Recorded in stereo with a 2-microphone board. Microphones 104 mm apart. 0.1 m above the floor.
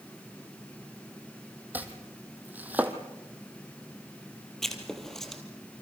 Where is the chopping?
15° right (ahead or behind), 2 m.